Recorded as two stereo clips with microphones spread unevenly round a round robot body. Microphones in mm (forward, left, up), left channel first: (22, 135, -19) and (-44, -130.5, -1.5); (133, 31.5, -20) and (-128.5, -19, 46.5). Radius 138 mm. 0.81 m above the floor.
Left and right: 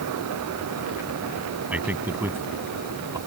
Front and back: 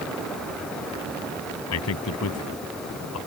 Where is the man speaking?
20° right; by 3.2 s 25° right.